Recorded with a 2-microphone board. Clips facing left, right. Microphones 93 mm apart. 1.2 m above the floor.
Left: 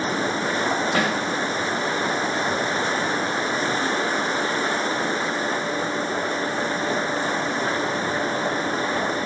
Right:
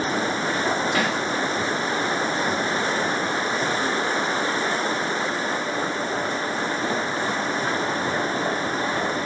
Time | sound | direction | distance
0.9 | a snare drum | 45° left (ahead or behind) | 1.2 m